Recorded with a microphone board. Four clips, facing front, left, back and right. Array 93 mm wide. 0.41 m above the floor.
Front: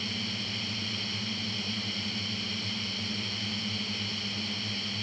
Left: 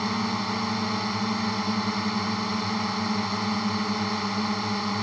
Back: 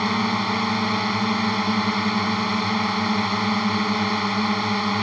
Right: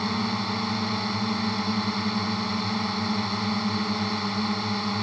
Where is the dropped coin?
No dropped coin in this recording.